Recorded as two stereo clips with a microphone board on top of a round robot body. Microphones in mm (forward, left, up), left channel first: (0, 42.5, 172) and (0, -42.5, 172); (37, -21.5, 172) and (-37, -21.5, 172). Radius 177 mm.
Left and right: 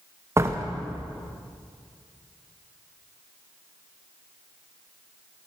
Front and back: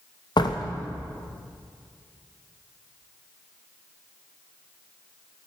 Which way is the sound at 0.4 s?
30° right.